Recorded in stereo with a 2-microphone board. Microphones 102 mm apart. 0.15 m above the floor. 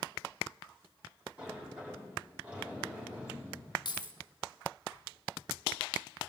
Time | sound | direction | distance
1.4 | a sliding door | 15° right (ahead or behind) | 7.5 m
3.9 | keys jangling | 50° left (ahead or behind) | 1.6 m